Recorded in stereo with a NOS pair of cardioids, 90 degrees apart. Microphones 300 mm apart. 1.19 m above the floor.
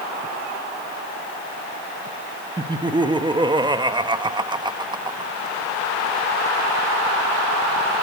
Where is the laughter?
15° right, 1.4 m.